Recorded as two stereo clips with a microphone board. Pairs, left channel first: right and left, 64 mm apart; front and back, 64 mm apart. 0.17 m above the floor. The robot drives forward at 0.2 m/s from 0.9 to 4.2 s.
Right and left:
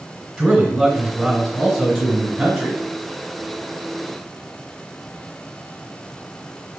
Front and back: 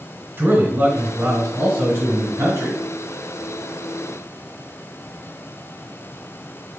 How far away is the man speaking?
About 1.6 m.